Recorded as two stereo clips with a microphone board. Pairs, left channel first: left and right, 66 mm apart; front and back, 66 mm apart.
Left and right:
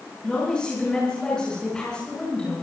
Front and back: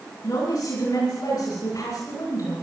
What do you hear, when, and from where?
0.2 s a woman speaking: 15° left, 7.5 m